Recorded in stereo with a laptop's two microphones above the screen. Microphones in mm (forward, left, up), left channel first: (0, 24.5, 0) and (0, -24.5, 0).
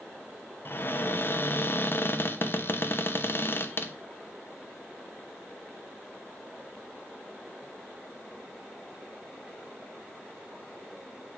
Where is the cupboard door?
50° left (ahead or behind), 0.7 m.